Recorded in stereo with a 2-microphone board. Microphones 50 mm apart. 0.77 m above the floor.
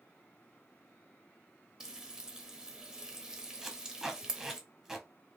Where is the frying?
15° right (ahead or behind), 0.7 m.